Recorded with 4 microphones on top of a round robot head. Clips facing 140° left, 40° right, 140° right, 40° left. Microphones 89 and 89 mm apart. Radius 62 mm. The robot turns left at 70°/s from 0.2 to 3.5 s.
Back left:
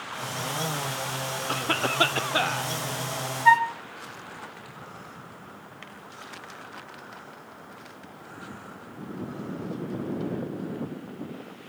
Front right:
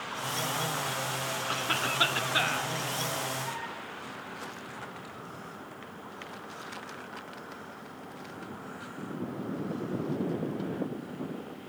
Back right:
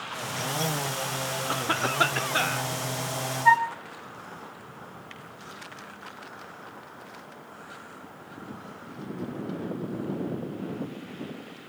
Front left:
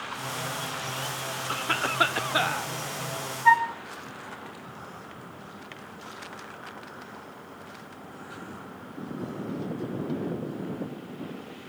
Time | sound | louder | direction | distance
1.5 | a cough | back left 6 dB, back right 1 dB | 165° left | 1.0 m
3.5 | a flute | back left 19 dB, even | 130° left | 0.6 m